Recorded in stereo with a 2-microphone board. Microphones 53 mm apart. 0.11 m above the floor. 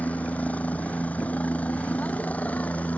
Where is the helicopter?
30° left (ahead or behind).